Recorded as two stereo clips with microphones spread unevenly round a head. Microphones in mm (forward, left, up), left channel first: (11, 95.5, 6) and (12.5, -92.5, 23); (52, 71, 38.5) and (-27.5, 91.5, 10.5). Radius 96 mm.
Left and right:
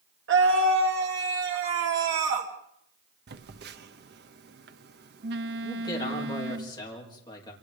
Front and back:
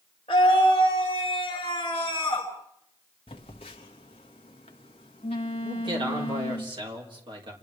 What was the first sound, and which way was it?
A scream, 70° right.